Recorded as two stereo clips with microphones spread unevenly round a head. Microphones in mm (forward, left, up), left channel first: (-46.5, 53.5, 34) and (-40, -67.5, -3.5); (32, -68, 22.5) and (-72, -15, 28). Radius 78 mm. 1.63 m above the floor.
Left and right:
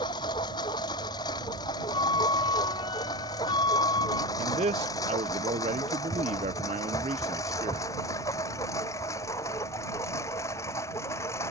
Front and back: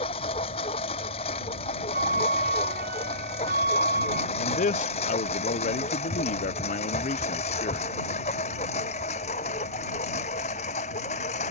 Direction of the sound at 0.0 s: 30° left.